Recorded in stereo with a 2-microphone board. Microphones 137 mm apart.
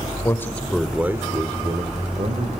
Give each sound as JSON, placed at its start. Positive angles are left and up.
{"t": 0.2, "sound": "a man speaking", "side_deg": 20, "distance_m": 1.6}